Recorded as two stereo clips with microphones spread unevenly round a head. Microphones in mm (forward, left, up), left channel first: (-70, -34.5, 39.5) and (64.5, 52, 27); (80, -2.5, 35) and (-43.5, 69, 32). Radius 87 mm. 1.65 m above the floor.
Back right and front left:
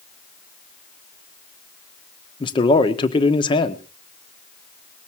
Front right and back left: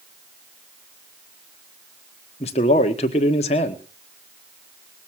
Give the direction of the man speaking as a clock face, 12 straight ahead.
3 o'clock.